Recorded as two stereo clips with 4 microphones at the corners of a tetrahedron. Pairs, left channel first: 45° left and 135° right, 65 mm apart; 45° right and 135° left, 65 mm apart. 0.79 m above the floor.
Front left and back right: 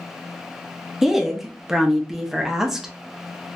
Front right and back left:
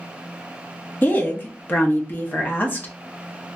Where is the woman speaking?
55° right, 0.7 m.